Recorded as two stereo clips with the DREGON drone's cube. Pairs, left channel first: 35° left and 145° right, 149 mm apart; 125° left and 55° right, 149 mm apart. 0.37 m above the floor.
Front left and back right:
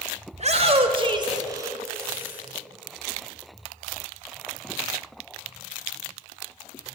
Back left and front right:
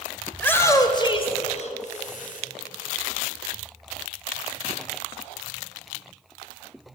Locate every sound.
0.3 s a shout: 155° right, 1.9 m; by 2.4 s 135° left, 3 m